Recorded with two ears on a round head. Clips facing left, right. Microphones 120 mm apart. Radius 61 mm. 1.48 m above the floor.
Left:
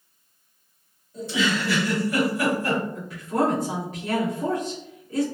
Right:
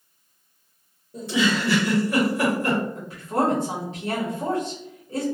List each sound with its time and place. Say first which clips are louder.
1.1 s a giggle: right 2 dB; 50° right (ahead or behind), 1.2 m
3.0 s a woman speaking: even; 25° right (ahead or behind), 1.0 m